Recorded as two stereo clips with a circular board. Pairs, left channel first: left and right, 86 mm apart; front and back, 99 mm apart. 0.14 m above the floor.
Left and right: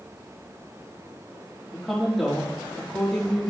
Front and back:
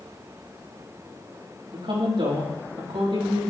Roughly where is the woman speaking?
Behind.